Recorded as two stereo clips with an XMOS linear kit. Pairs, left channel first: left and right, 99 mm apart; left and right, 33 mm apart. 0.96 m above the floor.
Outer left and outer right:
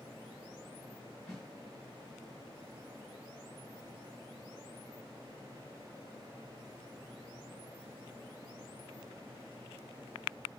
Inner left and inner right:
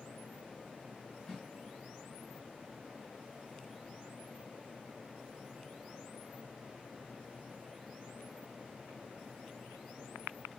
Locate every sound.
1.3 s a snare drum: 5° left (ahead or behind), 2.0 m